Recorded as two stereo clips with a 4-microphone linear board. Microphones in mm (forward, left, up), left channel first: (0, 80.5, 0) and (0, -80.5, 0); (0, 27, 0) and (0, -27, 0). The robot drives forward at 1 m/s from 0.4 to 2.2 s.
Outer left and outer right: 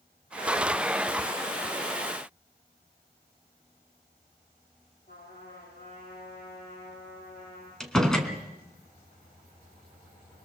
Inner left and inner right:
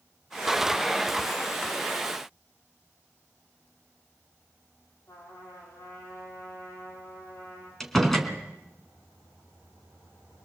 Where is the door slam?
5° left (ahead or behind), 2.5 m.